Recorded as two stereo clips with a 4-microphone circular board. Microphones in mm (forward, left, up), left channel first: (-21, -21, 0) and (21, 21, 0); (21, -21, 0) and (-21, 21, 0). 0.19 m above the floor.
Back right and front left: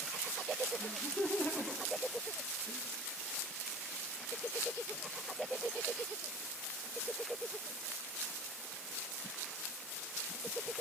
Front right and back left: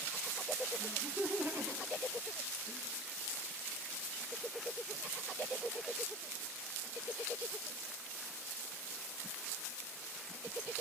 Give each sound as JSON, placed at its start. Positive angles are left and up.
{"t": 0.8, "sound": "laughter", "azimuth_deg": 175, "distance_m": 5.5}